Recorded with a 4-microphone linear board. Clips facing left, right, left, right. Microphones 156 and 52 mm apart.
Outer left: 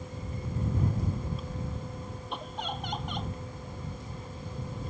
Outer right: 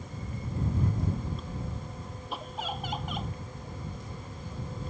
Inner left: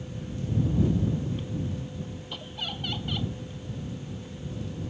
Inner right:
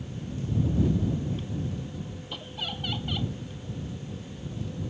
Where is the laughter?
5° right (ahead or behind).